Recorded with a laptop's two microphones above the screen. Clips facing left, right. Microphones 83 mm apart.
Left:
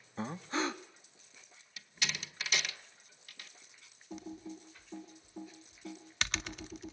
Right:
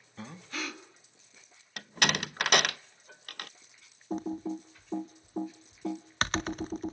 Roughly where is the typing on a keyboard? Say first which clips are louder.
Right 11 dB; right.